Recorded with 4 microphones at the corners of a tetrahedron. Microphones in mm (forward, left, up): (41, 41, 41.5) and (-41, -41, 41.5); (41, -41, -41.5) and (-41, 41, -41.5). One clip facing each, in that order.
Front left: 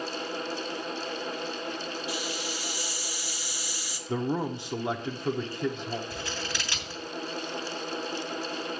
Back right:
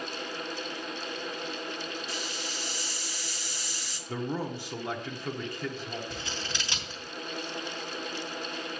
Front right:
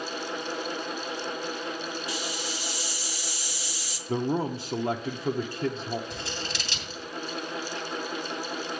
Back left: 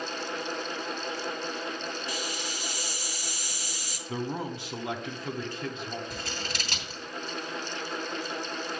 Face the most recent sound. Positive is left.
turn(degrees=160)